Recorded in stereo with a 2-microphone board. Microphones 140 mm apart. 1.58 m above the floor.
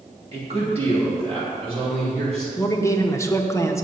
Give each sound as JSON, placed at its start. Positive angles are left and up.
{"t": 0.3, "sound": "a man speaking", "side_deg": -45, "distance_m": 2.0}
{"t": 2.6, "sound": "a man speaking", "side_deg": 20, "distance_m": 0.8}